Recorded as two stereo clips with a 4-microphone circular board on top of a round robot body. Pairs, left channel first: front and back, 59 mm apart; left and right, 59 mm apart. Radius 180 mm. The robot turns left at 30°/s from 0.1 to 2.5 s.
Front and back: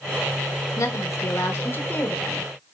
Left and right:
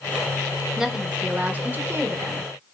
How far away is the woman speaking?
About 1.1 m.